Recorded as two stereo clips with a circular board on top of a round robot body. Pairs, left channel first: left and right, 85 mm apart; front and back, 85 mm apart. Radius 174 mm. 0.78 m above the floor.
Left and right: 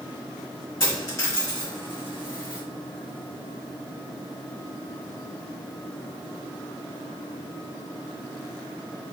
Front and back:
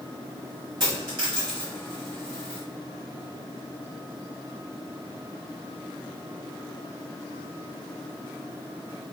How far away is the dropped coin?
About 3 m.